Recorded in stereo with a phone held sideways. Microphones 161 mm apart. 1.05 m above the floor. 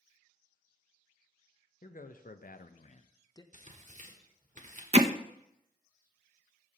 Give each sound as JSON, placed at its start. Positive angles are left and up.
{"t": 1.8, "sound": "a man speaking", "side_deg": 60, "distance_m": 1.0}
{"t": 3.5, "sound": "tearing paper", "side_deg": -50, "distance_m": 1.5}
{"t": 4.9, "sound": "hammering", "side_deg": -40, "distance_m": 0.6}